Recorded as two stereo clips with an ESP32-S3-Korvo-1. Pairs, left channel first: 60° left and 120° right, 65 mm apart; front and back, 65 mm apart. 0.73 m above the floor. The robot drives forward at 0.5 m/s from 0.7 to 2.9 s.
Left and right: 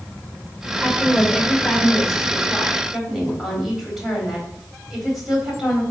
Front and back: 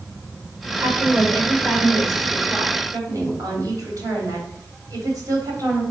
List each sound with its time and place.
0.8 s a woman speaking: 140° left, 2.5 m; by 5.8 s 155° left, 3.5 m